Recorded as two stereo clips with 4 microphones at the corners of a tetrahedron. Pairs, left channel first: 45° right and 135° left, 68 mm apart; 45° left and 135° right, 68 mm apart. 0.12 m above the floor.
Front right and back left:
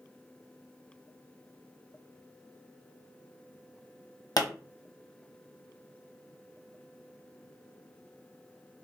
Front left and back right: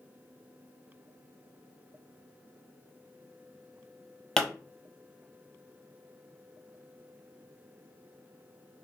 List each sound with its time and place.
4.4 s a pop: 35° right, 0.7 m